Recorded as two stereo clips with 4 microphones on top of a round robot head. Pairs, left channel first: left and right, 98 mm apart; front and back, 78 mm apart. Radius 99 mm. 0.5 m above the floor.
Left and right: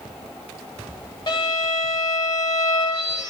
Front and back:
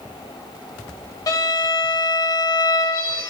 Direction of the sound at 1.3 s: 35° left.